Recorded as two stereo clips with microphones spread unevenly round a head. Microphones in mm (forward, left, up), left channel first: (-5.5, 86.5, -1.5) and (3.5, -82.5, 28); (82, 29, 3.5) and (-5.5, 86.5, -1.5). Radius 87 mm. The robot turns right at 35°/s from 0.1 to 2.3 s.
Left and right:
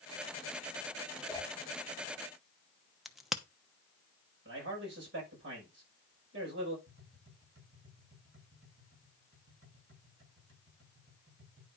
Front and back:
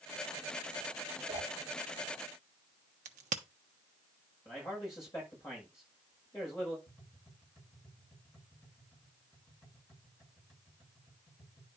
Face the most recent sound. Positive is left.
turn(degrees=-105)